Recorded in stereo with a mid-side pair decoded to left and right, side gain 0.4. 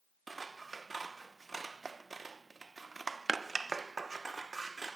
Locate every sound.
0.3 s scissors: 30° right, 0.6 m